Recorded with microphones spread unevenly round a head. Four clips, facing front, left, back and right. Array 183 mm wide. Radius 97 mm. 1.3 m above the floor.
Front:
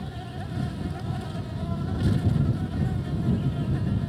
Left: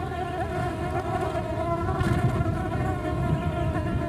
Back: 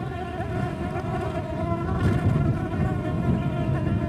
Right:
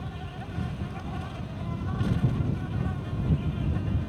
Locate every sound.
0.0 s an insect: 130° left